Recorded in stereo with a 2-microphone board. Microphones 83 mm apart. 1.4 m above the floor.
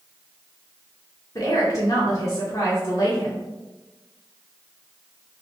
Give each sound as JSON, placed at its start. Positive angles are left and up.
{"t": 1.4, "sound": "a woman speaking", "side_deg": 40, "distance_m": 1.2}